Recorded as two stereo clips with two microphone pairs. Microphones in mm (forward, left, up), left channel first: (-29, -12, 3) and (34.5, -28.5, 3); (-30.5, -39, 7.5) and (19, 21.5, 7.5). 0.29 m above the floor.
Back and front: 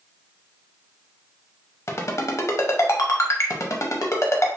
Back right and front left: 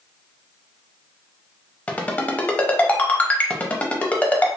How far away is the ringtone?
About 0.7 m.